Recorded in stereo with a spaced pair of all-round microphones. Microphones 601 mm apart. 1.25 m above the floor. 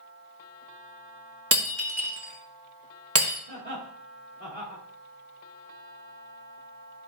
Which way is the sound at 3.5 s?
70° right (ahead or behind).